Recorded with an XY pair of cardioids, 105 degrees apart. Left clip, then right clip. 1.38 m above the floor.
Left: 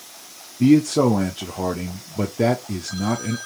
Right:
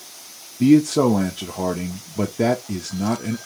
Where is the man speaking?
10° right, 0.6 m.